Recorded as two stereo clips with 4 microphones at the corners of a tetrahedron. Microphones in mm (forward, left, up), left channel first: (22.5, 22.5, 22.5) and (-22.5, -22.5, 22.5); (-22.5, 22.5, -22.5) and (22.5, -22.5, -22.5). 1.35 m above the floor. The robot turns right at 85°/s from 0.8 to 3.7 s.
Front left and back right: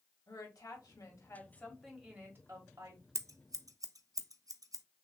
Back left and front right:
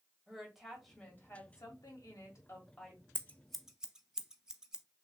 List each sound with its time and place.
0.3 s a woman speaking: 45° left, 1.7 m; by 3.0 s 125° right, 1.7 m
3.1 s scissors: 170° right, 0.6 m; by 4.8 s 125° right, 0.6 m